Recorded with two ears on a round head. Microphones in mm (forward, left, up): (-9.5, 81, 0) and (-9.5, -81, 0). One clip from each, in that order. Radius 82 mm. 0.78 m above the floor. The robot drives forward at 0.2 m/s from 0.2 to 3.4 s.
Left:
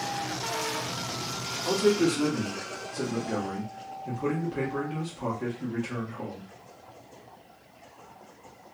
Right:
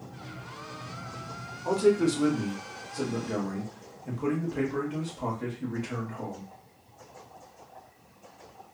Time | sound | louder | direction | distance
1.6 | a man speaking | even | centre (ahead or behind) | 0.8 m